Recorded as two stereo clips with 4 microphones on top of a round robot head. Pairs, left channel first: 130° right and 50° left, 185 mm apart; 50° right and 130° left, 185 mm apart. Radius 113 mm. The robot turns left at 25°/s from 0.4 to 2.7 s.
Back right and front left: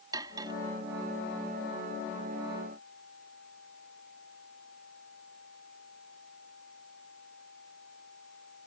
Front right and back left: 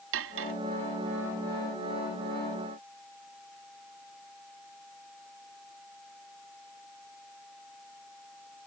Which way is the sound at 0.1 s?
120° left.